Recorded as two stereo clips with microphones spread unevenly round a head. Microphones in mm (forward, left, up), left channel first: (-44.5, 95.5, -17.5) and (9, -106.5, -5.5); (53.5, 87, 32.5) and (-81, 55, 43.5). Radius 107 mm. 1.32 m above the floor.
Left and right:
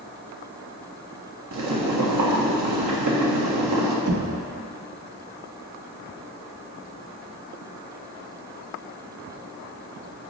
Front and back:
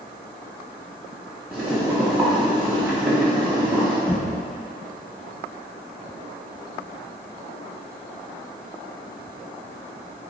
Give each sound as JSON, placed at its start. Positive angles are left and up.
{"t": 1.5, "sound": "boiling", "azimuth_deg": -80, "distance_m": 1.5}
{"t": 4.1, "sound": "knocking", "azimuth_deg": -75, "distance_m": 0.9}